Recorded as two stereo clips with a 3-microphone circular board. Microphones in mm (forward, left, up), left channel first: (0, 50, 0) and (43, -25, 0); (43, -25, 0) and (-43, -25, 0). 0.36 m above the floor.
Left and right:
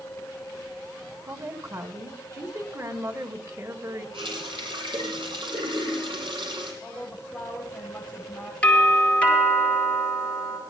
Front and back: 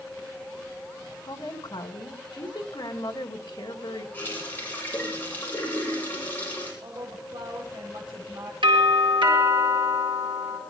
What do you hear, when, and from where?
1.3 s a woman speaking: 15° right, 2.5 m
4.1 s a running tap: 70° right, 9.5 m
6.8 s a woman speaking: 150° right, 7.5 m
8.6 s a doorbell: 165° right, 8.5 m